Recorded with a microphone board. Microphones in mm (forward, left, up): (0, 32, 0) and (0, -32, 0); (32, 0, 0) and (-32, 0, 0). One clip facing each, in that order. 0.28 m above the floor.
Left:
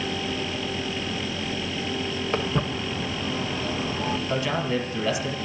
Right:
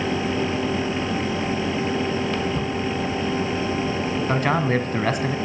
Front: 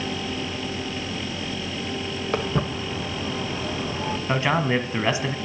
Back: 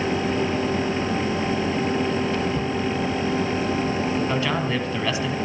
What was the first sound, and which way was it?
Footsteps, 30° left.